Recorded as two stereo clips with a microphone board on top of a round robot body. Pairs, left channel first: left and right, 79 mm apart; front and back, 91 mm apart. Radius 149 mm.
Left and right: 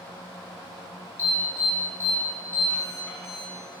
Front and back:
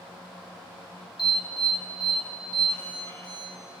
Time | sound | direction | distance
1.2 | an alarm | 30° left | 3.5 m